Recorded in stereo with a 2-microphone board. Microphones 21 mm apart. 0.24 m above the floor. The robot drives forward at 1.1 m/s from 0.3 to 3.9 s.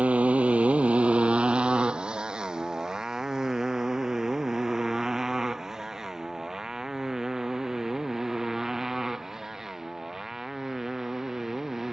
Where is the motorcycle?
80° right; by 11.9 s 20° right (ahead or behind).